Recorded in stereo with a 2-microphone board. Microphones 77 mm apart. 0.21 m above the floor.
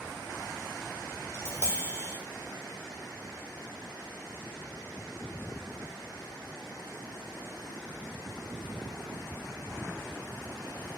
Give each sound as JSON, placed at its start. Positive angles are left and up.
{"t": 1.3, "sound": "tapping", "side_deg": 35, "distance_m": 1.0}